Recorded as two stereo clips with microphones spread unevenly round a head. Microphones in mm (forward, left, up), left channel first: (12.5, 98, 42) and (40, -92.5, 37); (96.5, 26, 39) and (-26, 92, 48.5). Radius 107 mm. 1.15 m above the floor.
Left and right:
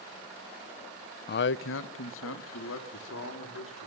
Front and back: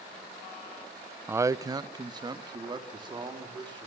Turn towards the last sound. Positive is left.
turn(degrees=95)